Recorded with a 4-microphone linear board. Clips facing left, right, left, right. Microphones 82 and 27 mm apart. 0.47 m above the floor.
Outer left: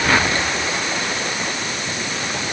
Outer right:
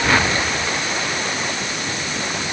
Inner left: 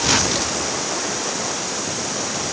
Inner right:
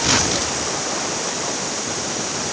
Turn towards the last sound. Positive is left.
No sound to turn to.